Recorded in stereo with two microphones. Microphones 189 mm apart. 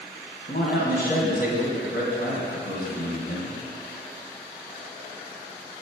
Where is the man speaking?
50° left (ahead or behind), 1.8 m.